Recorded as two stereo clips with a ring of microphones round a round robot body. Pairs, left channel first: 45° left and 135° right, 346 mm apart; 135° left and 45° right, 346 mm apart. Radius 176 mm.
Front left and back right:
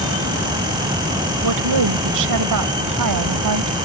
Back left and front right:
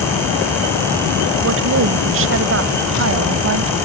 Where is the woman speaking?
100° right.